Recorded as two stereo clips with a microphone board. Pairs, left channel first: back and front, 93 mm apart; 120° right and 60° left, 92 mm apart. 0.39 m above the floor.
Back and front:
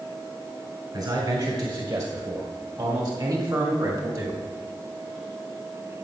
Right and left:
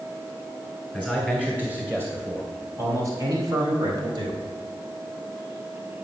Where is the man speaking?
20° right, 2 m; by 4.4 s 45° left, 2 m.